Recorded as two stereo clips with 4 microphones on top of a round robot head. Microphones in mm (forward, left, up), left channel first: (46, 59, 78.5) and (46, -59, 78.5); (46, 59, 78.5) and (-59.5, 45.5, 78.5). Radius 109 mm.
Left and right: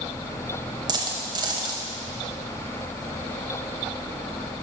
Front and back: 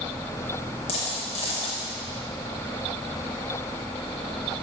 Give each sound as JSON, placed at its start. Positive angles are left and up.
{"t": 0.9, "sound": "a dropped coin", "azimuth_deg": -40, "distance_m": 1.0}